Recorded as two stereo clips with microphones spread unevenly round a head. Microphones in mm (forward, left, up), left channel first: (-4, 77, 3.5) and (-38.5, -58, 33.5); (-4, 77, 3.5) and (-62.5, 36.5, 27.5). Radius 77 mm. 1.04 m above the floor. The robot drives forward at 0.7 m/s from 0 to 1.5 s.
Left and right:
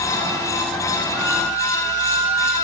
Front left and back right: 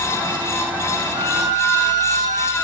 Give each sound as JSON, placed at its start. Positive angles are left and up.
{"t": 1.1, "sound": "a violin", "azimuth_deg": 180, "distance_m": 2.5}